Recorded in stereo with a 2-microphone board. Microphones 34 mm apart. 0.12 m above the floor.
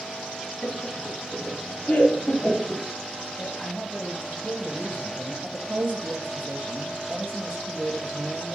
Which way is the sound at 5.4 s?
70° right (ahead or behind).